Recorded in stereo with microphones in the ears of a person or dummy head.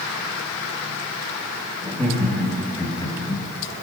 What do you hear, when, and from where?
1.8 s laughter: 15° left (ahead or behind), 2 m; by 3.4 s 30° left (ahead or behind), 1.3 m